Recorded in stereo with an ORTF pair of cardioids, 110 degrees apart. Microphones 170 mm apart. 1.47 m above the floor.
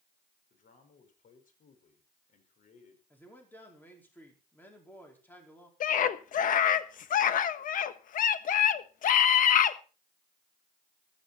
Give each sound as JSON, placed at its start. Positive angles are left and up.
{"t": 0.5, "sound": "a man speaking", "azimuth_deg": 50, "distance_m": 5.0}
{"t": 3.1, "sound": "a man speaking", "azimuth_deg": 10, "distance_m": 4.5}
{"t": 5.8, "sound": "a scream", "azimuth_deg": 55, "distance_m": 1.3}